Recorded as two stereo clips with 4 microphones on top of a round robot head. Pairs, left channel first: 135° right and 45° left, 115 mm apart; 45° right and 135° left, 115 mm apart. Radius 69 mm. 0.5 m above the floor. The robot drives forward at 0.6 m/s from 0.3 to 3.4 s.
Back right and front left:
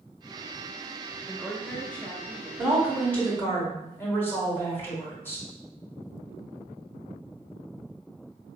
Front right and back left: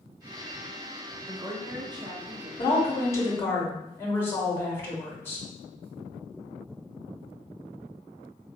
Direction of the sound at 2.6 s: 45° right.